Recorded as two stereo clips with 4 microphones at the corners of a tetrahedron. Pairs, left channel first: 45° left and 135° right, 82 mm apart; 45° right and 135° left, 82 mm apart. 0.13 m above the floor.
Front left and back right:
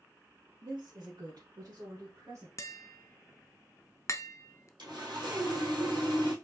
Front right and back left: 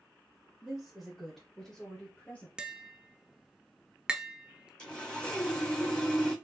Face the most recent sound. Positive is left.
turn(degrees=-125)